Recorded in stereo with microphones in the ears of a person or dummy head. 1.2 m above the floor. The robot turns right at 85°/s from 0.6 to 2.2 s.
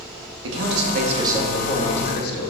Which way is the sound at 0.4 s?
80° right.